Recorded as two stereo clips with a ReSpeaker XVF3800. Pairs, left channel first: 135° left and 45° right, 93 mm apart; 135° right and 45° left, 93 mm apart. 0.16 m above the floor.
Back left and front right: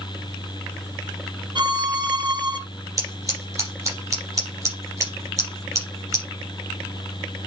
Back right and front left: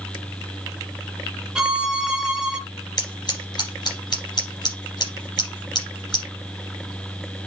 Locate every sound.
1.6 s a violin: 35° right, 1.7 m
3.0 s scissors: 95° right, 5.5 m